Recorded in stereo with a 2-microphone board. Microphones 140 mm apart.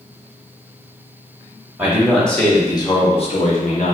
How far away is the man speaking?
About 0.8 m.